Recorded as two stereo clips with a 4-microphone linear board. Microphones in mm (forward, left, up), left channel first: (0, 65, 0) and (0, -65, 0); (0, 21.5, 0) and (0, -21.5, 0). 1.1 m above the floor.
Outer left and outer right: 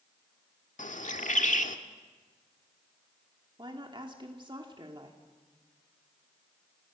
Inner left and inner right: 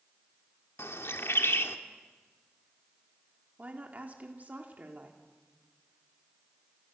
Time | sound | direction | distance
0.8 | a bird | 75° left (ahead or behind) | 1.5 m
3.6 | a woman speaking | 40° right (ahead or behind) | 2.5 m